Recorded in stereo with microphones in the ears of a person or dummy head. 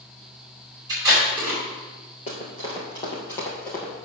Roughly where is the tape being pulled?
Right.